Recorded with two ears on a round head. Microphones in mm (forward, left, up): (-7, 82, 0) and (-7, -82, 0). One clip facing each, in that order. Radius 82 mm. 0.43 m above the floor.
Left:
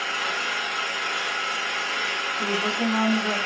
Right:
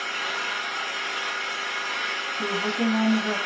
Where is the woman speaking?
15° left (ahead or behind), 2.5 m.